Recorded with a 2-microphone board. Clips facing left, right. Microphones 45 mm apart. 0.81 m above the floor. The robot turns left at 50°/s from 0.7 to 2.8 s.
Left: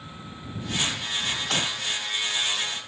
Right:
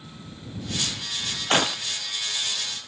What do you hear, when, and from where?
1.5 s breaking glass: 40° right (ahead or behind); by 1.8 s 55° right (ahead or behind)